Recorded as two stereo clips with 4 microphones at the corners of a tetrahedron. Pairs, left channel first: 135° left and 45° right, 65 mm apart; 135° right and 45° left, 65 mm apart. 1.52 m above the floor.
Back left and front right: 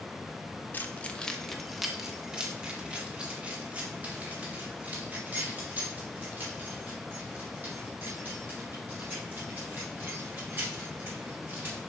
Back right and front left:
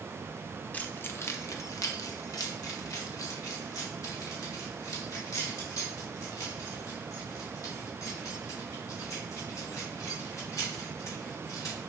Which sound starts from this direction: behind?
Keys jangling, at 0.7 s.